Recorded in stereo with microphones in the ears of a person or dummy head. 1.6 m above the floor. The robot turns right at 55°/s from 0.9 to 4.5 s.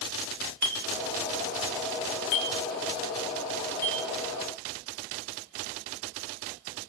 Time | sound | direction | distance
0.6 | a clink | 5° left (ahead or behind) | 0.6 m